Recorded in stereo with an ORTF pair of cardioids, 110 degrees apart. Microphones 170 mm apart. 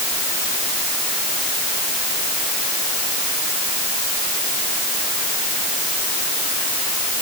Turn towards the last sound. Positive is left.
No sound to turn to.